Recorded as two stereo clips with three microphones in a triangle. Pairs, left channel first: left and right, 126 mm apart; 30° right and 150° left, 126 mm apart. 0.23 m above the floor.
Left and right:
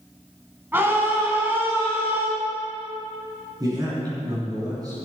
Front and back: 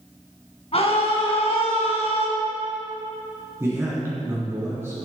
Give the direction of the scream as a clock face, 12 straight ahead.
1 o'clock.